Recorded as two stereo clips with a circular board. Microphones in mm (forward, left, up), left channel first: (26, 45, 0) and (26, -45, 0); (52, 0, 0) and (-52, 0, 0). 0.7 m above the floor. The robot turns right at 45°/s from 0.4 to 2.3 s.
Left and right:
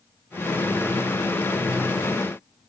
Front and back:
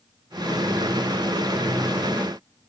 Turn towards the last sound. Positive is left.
No sound to turn to.